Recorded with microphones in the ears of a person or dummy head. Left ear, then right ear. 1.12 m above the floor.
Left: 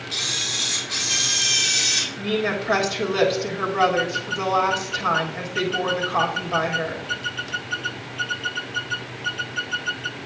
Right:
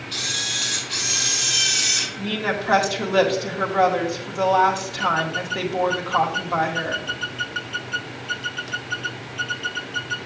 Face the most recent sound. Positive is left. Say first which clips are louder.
# left 1 dB
turn(degrees=-35)  # may be behind; listen again after turning